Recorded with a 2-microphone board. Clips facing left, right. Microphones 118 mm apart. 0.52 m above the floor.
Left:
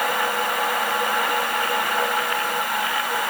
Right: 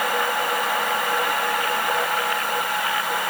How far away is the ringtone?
I don't hear a ringtone.